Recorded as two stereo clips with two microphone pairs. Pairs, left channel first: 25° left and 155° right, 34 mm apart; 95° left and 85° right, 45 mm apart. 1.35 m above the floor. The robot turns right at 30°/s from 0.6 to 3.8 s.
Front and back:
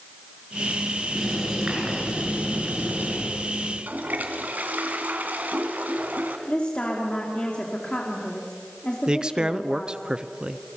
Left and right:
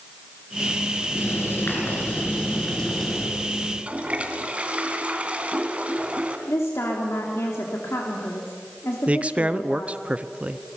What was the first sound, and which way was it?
Writing, 120° left.